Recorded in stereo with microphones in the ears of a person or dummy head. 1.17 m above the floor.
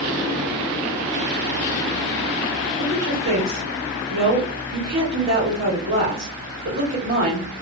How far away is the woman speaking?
About 2.5 m.